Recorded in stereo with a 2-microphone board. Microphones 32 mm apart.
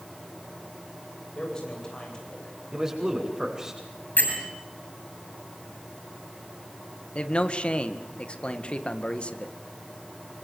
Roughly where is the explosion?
I don't hear an explosion.